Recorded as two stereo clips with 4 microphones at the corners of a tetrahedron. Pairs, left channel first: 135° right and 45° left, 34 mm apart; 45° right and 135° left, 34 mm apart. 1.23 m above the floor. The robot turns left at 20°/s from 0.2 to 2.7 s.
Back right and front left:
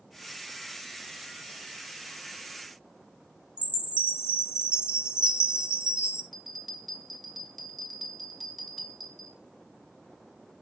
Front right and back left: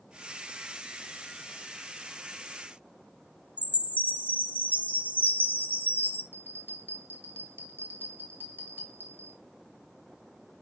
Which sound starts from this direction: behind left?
A bell, at 6.3 s.